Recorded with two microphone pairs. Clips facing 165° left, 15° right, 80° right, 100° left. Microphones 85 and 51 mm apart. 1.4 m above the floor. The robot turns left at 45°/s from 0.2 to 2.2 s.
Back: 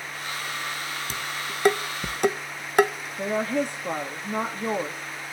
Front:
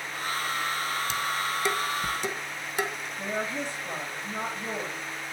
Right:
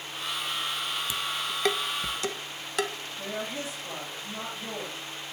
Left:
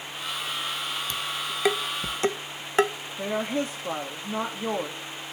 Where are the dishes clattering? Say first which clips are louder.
Front 4 dB, even; 150° right, 0.8 m; by 2.9 s 160° left, 0.8 m.